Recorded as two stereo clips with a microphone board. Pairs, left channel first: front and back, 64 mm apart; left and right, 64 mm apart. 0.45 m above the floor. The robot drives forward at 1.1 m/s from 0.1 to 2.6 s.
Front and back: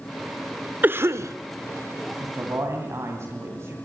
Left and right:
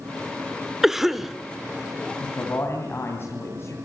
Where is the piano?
No piano in this recording.